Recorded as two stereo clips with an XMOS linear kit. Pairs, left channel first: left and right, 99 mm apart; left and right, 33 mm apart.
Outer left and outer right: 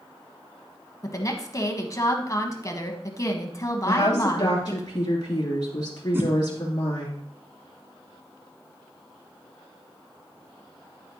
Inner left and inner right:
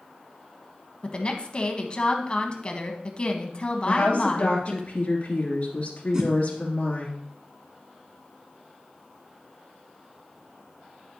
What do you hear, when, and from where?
1.0 s a woman speaking: 35° left (ahead or behind), 1.1 m
3.9 s a woman speaking: 45° left (ahead or behind), 2.5 m
6.1 s a whoosh: 25° right (ahead or behind), 1.2 m